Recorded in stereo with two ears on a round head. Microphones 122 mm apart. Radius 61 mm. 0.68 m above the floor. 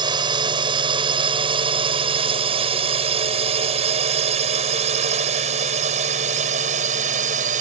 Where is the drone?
30° right (ahead or behind); by 7.6 s 55° right (ahead or behind).